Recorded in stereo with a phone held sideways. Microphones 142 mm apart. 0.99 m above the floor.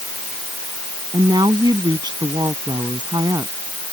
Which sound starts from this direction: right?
A woman speaking, at 1.1 s.